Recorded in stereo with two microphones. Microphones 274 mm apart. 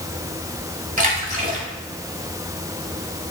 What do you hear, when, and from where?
1.0 s a splash: 30° right (ahead or behind), 1.5 m